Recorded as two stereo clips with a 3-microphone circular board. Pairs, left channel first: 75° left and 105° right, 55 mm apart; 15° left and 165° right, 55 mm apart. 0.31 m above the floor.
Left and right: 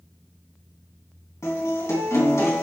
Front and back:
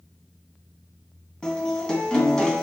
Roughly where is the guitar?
Left.